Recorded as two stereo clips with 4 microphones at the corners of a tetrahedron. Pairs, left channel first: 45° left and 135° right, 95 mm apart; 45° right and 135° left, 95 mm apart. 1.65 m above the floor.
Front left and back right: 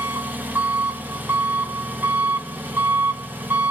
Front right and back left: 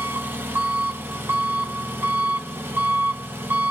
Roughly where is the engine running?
Behind.